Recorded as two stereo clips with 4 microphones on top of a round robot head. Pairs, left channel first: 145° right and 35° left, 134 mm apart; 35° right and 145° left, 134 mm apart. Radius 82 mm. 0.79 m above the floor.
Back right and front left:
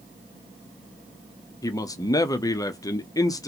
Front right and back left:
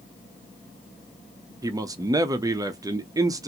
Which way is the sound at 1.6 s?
Straight behind.